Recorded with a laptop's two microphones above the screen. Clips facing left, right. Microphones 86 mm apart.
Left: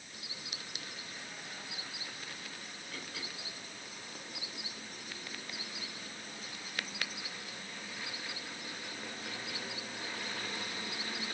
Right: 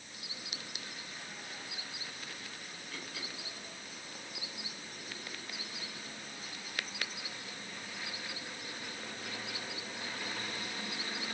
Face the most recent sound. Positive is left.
No sound to turn to.